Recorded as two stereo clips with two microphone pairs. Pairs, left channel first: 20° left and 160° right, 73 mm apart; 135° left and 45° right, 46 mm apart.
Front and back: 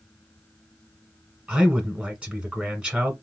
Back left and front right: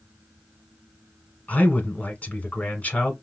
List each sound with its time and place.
1.5 s a man speaking: 135° left, 1.2 m